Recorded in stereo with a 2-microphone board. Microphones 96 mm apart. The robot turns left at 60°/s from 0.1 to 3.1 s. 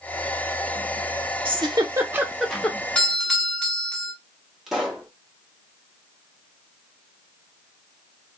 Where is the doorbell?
10° left (ahead or behind), 1.2 m; by 4.1 s 5° left (ahead or behind), 1.2 m.